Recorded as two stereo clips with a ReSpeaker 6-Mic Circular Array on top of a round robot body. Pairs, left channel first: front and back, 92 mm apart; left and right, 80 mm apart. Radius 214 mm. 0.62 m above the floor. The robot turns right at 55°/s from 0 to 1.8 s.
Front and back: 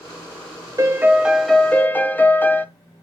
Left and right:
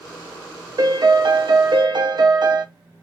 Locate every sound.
0.8 s a piano: 125° right, 0.8 m; by 2.6 s 70° right, 0.8 m